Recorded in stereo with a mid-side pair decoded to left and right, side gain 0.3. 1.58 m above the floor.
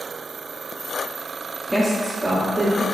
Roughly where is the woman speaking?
Ahead.